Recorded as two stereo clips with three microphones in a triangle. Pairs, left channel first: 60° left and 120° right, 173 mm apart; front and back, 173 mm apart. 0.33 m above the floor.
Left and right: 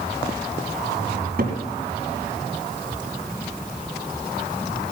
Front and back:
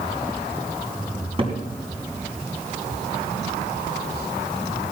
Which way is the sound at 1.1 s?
130° right.